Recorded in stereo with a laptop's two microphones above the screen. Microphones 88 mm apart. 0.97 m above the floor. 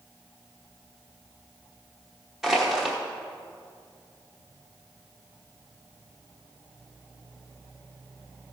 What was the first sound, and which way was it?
Crushing, 5° right (ahead or behind).